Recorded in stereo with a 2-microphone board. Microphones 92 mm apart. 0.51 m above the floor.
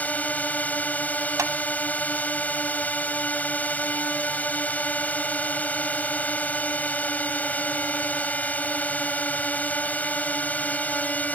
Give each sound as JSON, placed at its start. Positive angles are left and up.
{"t": 0.0, "sound": "a drone", "side_deg": 15}
{"t": 1.4, "sound": "a clap", "side_deg": -35}